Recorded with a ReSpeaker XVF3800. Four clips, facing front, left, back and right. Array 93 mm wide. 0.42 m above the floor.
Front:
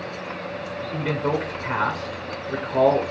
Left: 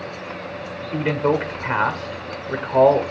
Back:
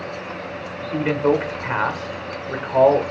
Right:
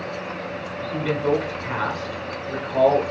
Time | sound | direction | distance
0.9 | a man speaking | 110° left | 1.2 m